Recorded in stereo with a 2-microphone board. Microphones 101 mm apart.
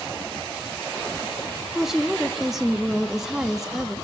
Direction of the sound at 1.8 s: 5° right (ahead or behind).